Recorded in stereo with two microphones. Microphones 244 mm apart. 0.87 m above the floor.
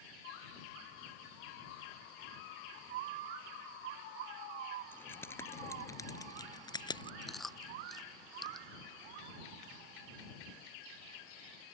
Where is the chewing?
Centre (ahead or behind).